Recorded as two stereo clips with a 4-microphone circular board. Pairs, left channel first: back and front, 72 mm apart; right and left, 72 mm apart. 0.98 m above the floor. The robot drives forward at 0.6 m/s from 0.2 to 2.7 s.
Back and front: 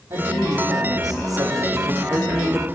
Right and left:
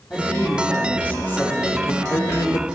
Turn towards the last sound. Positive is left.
turn(degrees=-95)